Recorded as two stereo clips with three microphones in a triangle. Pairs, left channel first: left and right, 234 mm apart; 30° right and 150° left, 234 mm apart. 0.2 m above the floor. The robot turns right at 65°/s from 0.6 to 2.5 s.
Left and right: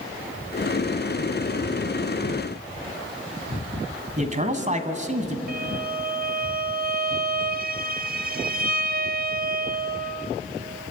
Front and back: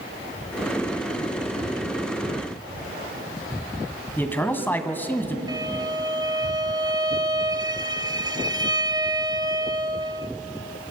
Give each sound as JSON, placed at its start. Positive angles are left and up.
{"t": 4.2, "sound": "a man speaking", "azimuth_deg": -105, "distance_m": 1.9}
{"t": 5.5, "sound": "a violin", "azimuth_deg": -135, "distance_m": 0.8}